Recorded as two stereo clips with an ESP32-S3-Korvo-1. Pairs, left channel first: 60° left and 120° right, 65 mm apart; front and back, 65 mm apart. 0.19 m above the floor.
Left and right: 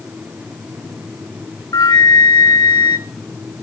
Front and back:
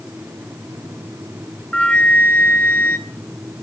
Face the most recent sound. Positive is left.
turn(degrees=70)